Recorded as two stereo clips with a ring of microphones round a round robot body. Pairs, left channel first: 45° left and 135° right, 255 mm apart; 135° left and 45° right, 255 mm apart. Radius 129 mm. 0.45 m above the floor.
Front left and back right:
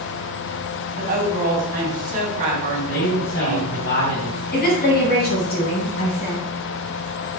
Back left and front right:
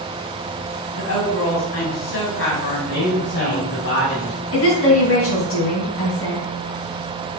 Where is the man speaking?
90° left, 2.5 m.